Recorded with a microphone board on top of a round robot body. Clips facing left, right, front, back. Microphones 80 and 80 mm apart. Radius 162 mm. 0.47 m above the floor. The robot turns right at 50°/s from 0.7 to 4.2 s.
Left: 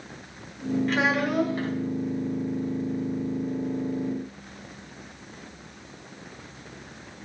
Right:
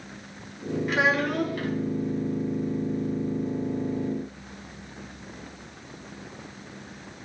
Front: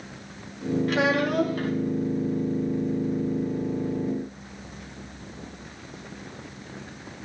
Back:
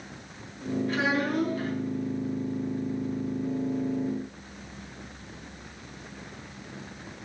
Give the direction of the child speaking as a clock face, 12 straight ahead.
12 o'clock.